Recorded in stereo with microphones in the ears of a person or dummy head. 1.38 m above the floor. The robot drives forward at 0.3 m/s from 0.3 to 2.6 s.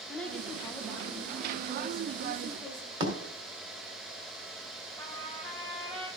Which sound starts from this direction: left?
A trumpet, at 5.0 s.